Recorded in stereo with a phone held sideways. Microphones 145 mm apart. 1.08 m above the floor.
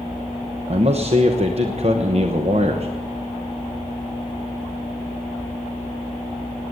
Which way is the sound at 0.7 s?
45° right (ahead or behind).